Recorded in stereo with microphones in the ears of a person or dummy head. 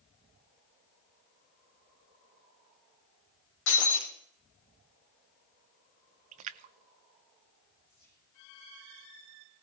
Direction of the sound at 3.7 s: 65° left (ahead or behind).